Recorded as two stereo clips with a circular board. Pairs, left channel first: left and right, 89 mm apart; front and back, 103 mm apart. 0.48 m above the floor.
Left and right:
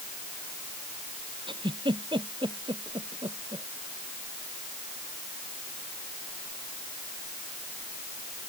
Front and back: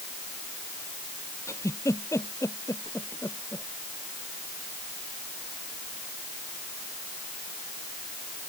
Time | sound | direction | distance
1.5 | a giggle | 60° right | ?